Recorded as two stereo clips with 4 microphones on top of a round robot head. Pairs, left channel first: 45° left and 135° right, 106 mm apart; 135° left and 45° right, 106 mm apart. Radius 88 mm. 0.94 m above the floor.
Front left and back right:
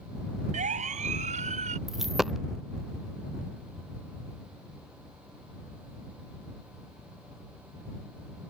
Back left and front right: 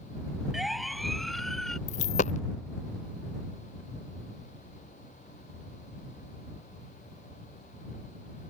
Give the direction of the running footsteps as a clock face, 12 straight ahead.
I don't hear running footsteps.